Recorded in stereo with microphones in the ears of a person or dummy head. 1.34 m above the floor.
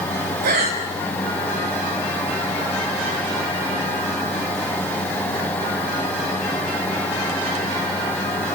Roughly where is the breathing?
Right.